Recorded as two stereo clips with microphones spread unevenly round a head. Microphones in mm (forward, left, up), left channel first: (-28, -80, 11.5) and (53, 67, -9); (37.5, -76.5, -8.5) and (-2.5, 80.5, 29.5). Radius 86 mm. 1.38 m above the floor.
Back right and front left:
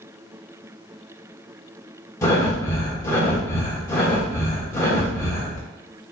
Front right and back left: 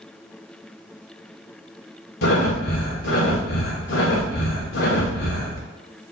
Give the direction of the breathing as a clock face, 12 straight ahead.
2 o'clock.